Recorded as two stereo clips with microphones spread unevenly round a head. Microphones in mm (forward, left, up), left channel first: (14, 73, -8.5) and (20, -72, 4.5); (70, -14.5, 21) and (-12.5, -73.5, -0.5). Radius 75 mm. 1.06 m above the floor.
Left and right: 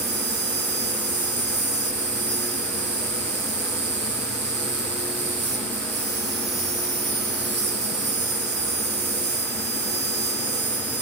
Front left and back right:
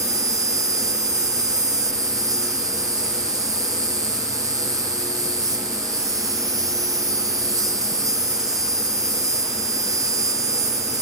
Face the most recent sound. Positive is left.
turn(degrees=-95)